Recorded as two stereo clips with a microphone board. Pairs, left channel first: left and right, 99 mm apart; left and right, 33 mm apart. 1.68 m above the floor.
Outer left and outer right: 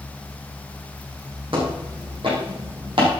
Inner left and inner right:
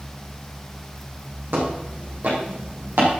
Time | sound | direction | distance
1.5 | footsteps | 60° right (ahead or behind) | 6.5 m